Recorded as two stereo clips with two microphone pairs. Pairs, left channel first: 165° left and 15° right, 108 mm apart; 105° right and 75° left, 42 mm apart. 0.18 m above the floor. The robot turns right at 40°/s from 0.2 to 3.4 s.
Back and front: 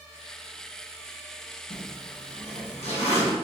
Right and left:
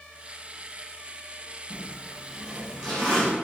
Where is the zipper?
125° left, 1.4 m; by 3.3 s 170° right, 1.4 m.